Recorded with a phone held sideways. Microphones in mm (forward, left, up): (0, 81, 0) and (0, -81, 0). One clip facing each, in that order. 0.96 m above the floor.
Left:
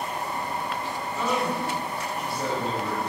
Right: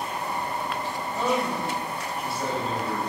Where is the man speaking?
35° right (ahead or behind), 0.8 m; by 3.0 s 30° left (ahead or behind), 1.3 m.